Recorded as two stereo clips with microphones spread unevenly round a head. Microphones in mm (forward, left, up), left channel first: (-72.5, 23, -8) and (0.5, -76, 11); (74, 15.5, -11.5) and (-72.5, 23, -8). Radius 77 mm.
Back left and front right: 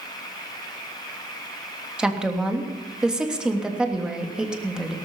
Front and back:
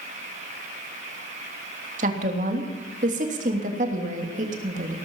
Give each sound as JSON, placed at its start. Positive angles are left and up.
{"t": 2.0, "sound": "a woman speaking", "azimuth_deg": -140, "distance_m": 3.0}